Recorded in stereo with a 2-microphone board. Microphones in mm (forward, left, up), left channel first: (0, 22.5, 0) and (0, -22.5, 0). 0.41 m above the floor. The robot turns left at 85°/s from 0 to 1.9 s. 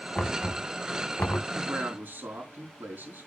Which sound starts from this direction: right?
A man speaking, at 1.6 s.